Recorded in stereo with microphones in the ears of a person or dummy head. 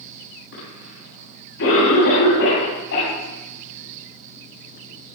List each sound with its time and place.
0.5 s a cough: 65° left (ahead or behind), 9 m